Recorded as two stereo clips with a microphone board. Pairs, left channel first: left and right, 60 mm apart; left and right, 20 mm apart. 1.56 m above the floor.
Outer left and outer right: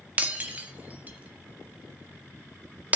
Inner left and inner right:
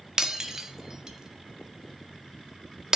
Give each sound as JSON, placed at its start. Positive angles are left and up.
{"t": 0.2, "sound": "breaking glass", "side_deg": -30, "distance_m": 1.1}